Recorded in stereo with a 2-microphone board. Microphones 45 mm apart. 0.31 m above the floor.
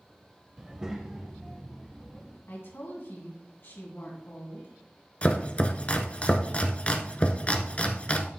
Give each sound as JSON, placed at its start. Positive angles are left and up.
{"t": 0.6, "sound": "a child speaking", "side_deg": -15, "distance_m": 0.7}
{"t": 2.5, "sound": "a woman speaking", "side_deg": 60, "distance_m": 3.0}
{"t": 5.2, "sound": "chopping", "side_deg": 30, "distance_m": 0.8}